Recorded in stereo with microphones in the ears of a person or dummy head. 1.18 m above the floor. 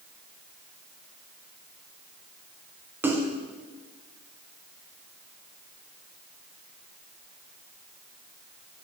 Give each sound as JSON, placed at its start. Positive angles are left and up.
{"t": 3.0, "sound": "a splash", "side_deg": -10, "distance_m": 0.5}